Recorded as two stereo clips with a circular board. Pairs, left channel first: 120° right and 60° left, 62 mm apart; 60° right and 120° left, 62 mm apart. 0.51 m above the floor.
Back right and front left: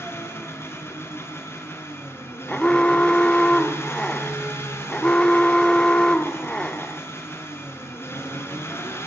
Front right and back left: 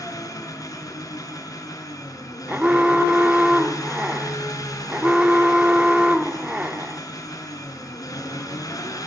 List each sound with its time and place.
0.0 s an engine running: 70° right, 6 m
2.5 s an alarm: 175° left, 1.3 m